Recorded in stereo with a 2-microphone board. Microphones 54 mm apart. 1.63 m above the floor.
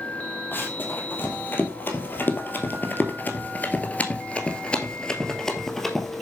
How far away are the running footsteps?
About 3 m.